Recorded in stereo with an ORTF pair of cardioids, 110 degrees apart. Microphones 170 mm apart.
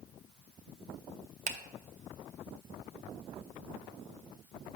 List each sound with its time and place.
1.5 s a finger snap: 50° right, 0.6 m